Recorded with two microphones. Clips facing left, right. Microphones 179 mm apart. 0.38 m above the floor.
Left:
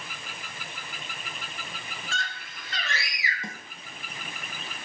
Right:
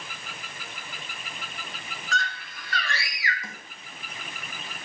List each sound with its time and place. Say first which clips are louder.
2.1 s a scream: right 7 dB; 30° left (ahead or behind), 4.5 m; by 3.3 s 20° left (ahead or behind), 4.5 m
3.4 s a snare drum: left 3 dB; 30° left (ahead or behind), 4 m